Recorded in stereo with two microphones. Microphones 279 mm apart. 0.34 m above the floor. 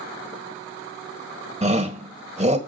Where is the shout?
25° right (ahead or behind), 1.7 m.